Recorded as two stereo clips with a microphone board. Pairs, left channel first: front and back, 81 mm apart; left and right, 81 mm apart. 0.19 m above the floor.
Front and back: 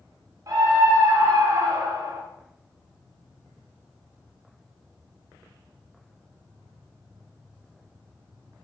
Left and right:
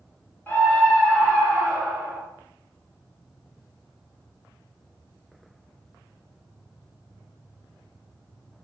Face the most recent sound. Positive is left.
turn(degrees=-165)